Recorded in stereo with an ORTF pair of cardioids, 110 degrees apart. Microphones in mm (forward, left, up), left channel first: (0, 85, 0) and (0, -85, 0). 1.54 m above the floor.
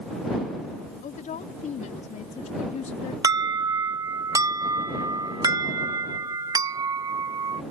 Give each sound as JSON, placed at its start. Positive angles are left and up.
{"t": 1.0, "sound": "a woman speaking", "azimuth_deg": 50}
{"t": 3.2, "sound": "an alarm", "azimuth_deg": -20}